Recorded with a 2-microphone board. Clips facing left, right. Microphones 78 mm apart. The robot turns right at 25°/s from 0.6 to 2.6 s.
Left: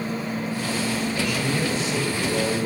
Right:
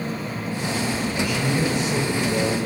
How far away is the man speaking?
About 4 m.